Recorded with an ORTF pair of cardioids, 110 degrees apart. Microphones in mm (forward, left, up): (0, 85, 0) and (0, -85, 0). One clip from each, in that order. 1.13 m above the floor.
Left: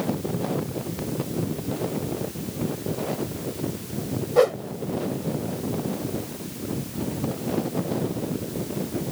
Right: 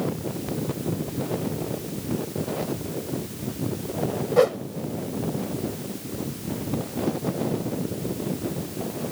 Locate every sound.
4.4 s a whoosh: straight ahead